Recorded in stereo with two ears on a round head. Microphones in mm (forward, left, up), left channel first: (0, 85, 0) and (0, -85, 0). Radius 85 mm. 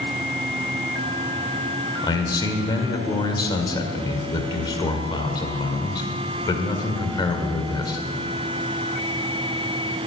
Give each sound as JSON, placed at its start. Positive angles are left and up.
{"t": 2.0, "sound": "a man speaking", "side_deg": 25, "distance_m": 1.8}